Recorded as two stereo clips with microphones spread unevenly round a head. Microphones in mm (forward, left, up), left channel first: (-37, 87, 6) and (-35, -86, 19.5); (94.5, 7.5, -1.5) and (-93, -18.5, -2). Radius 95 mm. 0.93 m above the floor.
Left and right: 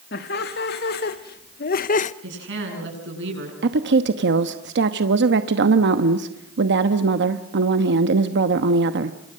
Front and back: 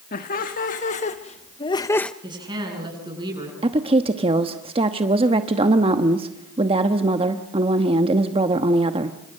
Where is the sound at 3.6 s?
110° right, 1.1 m.